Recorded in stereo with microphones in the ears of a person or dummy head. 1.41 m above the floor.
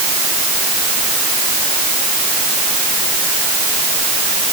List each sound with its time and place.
Only background noise.